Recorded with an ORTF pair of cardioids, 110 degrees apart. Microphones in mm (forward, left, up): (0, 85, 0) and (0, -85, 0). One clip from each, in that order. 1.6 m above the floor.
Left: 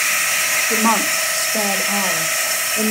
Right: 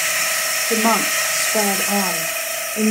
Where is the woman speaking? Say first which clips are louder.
Right 3 dB; 10° right, 3 m; by 2.9 s 40° right, 3 m.